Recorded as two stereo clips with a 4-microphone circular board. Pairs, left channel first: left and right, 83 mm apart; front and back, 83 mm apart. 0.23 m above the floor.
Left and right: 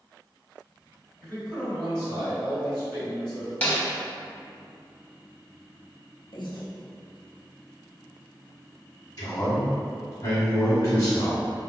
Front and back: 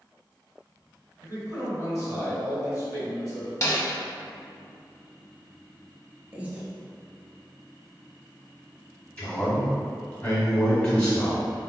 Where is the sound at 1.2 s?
160° left, 1.9 m.